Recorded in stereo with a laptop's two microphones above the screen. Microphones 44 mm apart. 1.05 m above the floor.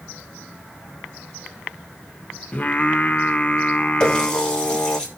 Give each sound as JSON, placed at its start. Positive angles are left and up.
{"t": 2.5, "sound": "singing", "side_deg": 30, "distance_m": 0.7}
{"t": 4.0, "sound": "a running tap", "side_deg": 20, "distance_m": 1.3}